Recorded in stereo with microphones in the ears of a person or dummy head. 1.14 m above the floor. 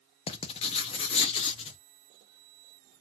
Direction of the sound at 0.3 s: 30° left (ahead or behind).